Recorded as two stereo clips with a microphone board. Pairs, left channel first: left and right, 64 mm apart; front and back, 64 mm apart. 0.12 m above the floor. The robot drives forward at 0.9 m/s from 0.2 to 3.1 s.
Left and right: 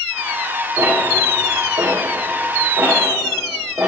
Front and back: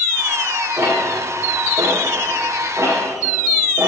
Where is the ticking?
125° right, 6.5 m; by 3.9 s 135° right, 8 m.